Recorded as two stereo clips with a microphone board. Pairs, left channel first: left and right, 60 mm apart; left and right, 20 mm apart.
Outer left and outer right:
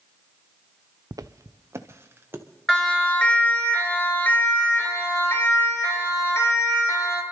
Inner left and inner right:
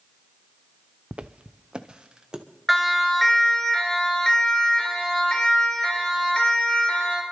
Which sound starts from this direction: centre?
A siren, at 2.7 s.